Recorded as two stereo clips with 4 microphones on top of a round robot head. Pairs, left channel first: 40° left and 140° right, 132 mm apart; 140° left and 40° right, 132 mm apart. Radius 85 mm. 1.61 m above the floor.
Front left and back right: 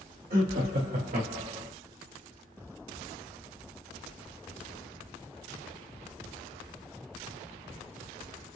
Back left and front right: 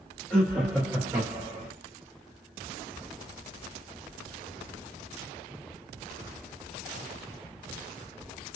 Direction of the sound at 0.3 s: 140° right.